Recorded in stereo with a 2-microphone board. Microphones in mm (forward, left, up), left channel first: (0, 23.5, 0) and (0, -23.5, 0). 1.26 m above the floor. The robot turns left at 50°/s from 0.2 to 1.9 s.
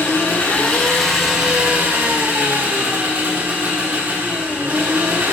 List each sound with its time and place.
0.0 s an engine running: 45° left, 1.4 m; by 5.3 s 40° right, 1.4 m